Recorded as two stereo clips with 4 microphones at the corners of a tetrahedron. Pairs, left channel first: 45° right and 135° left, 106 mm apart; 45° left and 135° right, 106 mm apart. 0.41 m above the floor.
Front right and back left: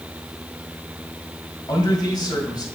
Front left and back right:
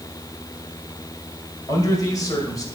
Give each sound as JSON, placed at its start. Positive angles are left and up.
{"t": 1.7, "sound": "a man speaking", "azimuth_deg": -5, "distance_m": 2.0}